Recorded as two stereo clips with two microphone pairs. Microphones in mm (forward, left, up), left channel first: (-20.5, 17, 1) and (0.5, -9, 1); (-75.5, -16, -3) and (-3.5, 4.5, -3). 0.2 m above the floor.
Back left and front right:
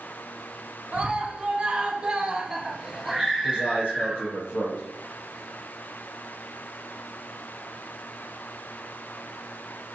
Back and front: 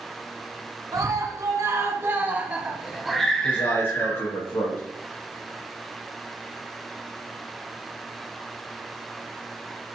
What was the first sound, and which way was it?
A scream, 5° left.